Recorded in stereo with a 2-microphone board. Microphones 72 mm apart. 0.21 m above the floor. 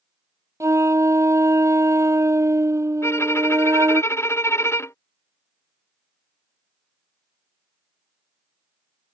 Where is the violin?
35° left (ahead or behind).